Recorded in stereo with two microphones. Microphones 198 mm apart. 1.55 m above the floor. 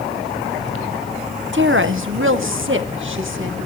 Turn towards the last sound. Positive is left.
turn(degrees=-75)  # may be behind; listen again after turning